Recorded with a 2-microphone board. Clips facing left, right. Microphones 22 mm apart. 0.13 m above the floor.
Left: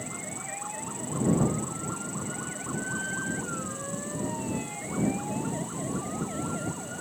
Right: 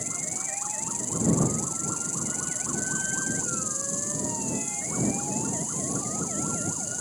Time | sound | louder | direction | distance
0.0 | an insect | right 4 dB | 70° right (ahead or behind) | ?